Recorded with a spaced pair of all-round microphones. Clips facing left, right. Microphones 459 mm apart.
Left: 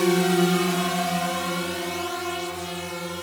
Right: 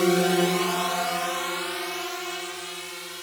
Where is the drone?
5° left (ahead or behind); by 3.2 s 80° left.